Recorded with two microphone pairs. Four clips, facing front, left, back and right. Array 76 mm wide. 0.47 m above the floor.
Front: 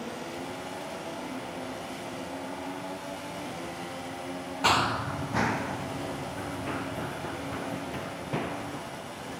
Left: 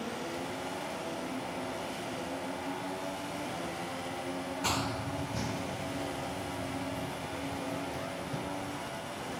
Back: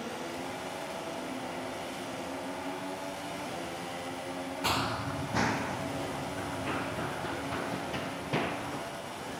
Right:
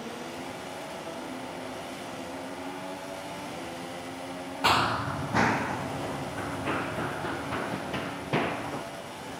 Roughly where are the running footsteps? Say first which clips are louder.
Right 11 dB, front 7 dB; ahead right.